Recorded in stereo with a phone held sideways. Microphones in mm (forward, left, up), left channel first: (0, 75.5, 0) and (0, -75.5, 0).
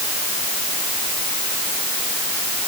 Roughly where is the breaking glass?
I don't hear breaking glass.